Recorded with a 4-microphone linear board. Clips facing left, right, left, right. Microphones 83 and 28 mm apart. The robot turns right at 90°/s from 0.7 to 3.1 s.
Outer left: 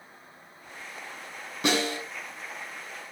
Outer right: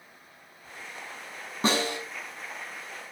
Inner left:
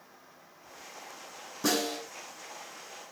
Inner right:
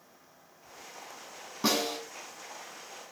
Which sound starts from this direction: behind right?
A snare drum, at 1.6 s.